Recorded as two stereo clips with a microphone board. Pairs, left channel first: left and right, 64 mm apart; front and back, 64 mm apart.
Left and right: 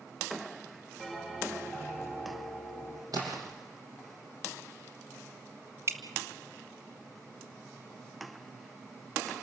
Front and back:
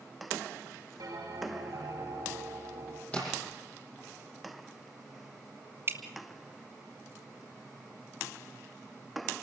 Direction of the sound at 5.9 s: 135° right.